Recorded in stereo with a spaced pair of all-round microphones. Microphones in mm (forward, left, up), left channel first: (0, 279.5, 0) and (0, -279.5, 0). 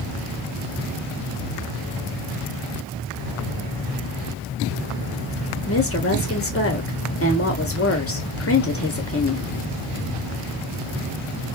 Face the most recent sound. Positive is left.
turn(degrees=25)  # may be behind; listen again after turning